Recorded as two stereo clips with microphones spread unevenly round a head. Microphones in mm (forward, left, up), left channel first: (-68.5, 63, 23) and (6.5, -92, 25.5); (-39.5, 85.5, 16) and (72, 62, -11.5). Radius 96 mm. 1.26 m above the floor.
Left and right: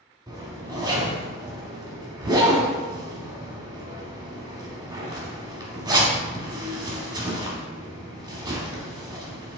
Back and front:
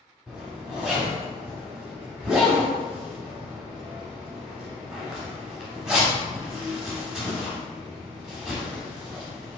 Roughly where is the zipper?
Behind right.